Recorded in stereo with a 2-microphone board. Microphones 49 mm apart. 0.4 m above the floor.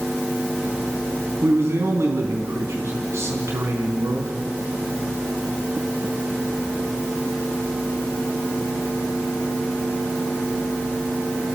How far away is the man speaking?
About 3 m.